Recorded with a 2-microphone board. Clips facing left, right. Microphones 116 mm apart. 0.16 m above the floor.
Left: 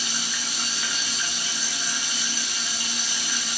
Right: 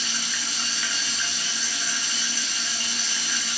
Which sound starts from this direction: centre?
Running water, at 0.0 s.